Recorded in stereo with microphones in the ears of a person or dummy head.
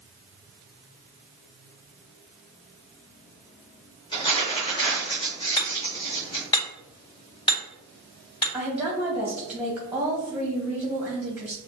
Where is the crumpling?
20° left (ahead or behind), 2.5 m.